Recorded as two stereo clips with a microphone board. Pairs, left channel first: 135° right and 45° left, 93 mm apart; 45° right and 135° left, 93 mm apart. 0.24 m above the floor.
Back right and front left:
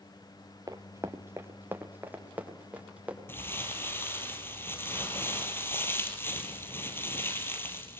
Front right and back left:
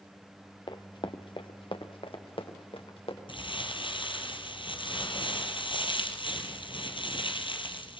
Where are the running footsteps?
10° right, 1.9 m; by 3.2 s 30° right, 5 m.